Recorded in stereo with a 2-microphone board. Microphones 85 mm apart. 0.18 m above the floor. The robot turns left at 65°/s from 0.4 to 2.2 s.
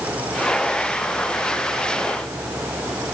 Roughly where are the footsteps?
No footsteps in this recording.